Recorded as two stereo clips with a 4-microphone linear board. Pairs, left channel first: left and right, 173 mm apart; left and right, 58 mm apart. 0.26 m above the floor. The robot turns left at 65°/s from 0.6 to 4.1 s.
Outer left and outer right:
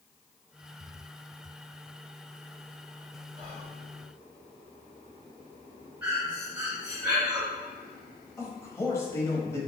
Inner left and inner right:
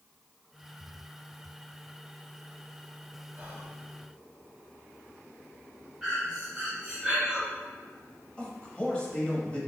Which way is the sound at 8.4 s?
15° left (ahead or behind).